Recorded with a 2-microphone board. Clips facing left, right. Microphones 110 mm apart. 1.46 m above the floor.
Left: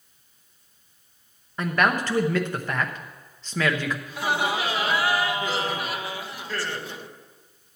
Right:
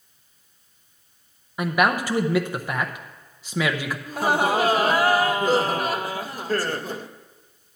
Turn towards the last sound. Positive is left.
turn(degrees=-45)  # may be behind; listen again after turning